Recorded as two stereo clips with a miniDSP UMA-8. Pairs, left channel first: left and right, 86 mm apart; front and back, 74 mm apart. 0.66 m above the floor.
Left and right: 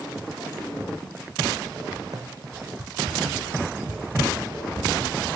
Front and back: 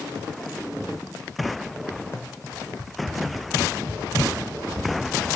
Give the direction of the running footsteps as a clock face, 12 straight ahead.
2 o'clock.